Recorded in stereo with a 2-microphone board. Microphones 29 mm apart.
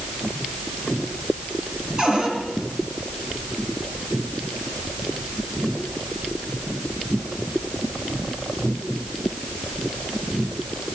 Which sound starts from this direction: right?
A cupboard door, at 2.0 s.